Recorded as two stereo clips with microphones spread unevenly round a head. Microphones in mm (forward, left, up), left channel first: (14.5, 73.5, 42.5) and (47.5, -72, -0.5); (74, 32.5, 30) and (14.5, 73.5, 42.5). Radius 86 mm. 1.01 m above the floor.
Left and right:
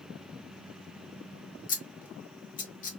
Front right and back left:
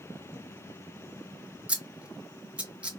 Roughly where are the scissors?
Left.